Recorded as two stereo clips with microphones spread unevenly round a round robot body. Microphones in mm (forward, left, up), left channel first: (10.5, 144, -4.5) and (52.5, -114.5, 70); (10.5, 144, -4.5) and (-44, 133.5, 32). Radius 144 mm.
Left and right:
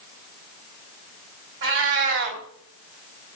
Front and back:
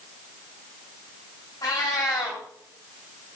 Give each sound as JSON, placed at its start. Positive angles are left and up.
{"t": 1.6, "sound": "a cat meowing", "azimuth_deg": -40, "distance_m": 3.5}